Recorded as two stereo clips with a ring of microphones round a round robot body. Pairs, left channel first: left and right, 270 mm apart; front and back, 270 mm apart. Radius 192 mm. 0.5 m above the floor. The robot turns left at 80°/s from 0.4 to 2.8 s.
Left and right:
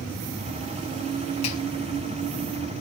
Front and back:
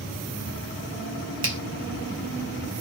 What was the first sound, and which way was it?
A finger snap, 160° left.